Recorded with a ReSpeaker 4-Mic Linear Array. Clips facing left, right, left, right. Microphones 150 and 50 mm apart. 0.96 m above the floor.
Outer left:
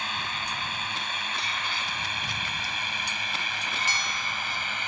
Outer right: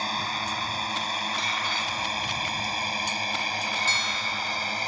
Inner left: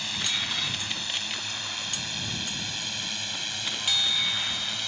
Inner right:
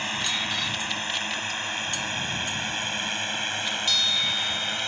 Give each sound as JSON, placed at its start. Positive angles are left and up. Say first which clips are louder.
{"t": 0.0, "sound": "a drone", "louder": "outer right 4 dB, inner right 3 dB", "side_deg": -35}
{"t": 3.9, "sound": "a bell", "louder": "outer right 2 dB, inner left 1 dB", "side_deg": 15}